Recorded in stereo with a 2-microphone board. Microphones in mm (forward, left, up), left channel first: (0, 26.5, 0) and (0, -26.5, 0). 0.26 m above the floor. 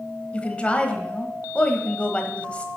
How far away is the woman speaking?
About 1.1 m.